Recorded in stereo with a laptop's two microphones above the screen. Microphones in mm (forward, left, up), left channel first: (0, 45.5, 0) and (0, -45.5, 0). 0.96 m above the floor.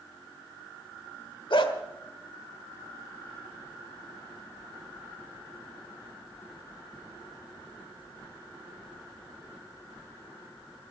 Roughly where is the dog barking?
Left.